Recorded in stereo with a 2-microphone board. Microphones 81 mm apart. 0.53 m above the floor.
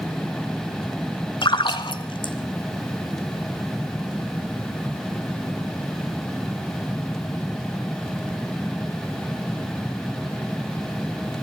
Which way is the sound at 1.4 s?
80° left.